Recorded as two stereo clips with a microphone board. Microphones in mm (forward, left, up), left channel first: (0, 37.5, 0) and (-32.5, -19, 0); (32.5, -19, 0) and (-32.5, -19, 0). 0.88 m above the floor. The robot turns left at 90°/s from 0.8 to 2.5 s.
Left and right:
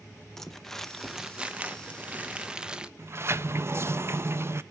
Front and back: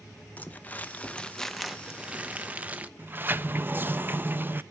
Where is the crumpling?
20° right, 0.8 m; by 2.9 s 170° right, 0.8 m.